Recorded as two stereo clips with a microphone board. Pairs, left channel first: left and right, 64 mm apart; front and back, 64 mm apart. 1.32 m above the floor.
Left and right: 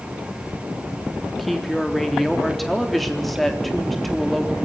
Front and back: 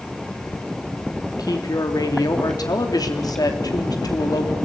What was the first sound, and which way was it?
A woman speaking, straight ahead.